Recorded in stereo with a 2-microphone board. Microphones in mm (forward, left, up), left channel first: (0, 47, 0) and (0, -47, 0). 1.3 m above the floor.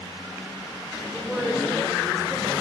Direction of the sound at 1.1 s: Centre (ahead or behind).